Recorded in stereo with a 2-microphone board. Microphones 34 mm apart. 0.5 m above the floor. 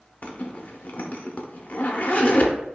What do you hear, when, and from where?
0.2 s a zipper: 55° left (ahead or behind), 0.6 m